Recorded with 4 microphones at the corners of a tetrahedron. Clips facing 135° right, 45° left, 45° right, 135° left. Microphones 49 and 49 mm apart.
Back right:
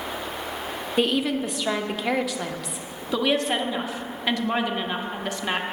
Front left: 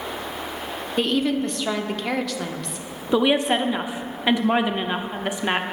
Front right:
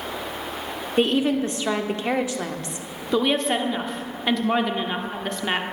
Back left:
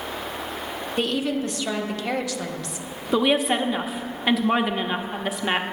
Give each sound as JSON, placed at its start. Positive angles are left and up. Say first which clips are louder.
{"t": 1.0, "sound": "a woman speaking", "louder": "front left 1 dB, front right 5 dB", "azimuth_deg": -55, "distance_m": 0.8}
{"t": 3.1, "sound": "a woman speaking", "louder": "front left 4 dB, back left 1 dB", "azimuth_deg": 70, "distance_m": 0.7}